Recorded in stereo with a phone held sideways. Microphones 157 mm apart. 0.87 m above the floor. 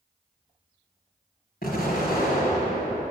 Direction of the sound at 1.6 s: 75° left (ahead or behind).